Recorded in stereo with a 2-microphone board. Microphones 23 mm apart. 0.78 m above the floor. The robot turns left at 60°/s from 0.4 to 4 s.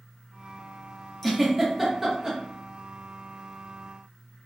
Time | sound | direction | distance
1.2 | a giggle | 10° left (ahead or behind) | 0.8 m